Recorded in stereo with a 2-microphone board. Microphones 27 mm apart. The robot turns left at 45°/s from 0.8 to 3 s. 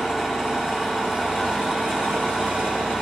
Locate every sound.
0.0 s an engine running: 30° right, 4.5 m; by 3.0 s 130° right, 4.5 m